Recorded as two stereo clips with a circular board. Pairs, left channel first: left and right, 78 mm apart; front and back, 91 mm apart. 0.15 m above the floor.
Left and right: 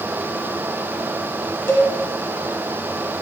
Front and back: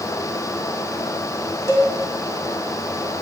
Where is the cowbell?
40° left, 0.7 m.